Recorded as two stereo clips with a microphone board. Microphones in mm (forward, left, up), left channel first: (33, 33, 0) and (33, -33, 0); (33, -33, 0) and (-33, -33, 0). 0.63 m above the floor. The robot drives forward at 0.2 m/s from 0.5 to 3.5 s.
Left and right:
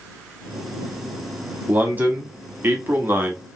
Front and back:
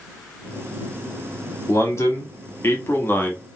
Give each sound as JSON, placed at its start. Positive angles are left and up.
{"t": 1.7, "sound": "a man speaking", "azimuth_deg": -30, "distance_m": 1.1}